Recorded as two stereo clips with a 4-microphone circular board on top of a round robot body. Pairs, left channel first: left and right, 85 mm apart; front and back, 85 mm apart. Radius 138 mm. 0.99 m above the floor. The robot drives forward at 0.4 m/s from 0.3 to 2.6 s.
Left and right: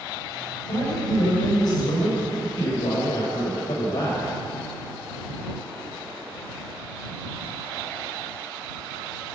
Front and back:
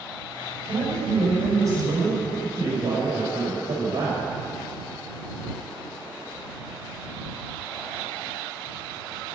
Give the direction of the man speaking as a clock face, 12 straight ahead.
8 o'clock.